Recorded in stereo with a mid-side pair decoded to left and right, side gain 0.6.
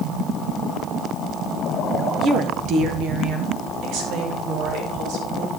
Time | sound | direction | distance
2.2 | a woman speaking | 40° right | 1.5 m